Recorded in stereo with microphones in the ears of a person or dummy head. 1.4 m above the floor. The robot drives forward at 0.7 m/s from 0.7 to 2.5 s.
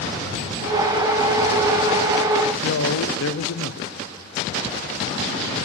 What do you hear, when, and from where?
2.6 s a man speaking: 75° left (ahead or behind), 0.9 m